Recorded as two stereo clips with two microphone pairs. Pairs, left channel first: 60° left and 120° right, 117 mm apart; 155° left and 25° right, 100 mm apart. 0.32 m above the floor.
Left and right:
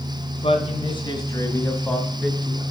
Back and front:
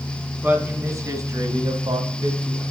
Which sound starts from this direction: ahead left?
A man speaking, at 0.4 s.